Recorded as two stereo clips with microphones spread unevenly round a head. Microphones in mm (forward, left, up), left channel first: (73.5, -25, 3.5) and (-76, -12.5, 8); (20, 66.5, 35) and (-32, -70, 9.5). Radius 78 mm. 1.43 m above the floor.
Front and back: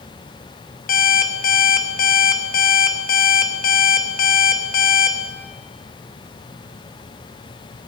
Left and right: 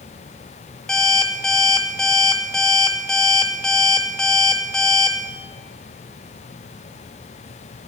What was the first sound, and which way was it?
An alarm clock, 10° right.